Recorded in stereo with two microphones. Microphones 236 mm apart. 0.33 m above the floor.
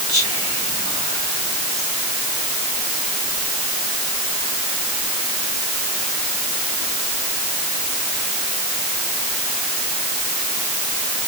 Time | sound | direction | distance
0.1 | whispering | 65° left (ahead or behind) | 3 m